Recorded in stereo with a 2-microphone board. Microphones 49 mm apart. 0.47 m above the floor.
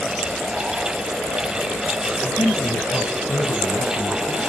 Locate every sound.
2.2 s a man speaking: 75° left (ahead or behind), 4 m; by 4.5 s 65° left (ahead or behind), 4.5 m